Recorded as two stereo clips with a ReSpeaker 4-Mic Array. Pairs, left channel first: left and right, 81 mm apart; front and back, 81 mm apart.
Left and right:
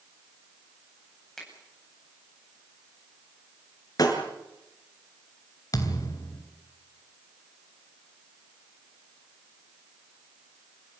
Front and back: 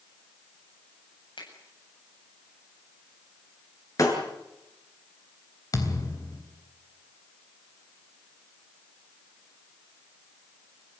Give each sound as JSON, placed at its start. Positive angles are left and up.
{"t": 1.4, "sound": "a finger snap", "azimuth_deg": 5, "distance_m": 8.0}
{"t": 4.0, "sound": "breaking glass", "azimuth_deg": 50, "distance_m": 6.0}
{"t": 5.7, "sound": "a thud", "azimuth_deg": 45, "distance_m": 3.5}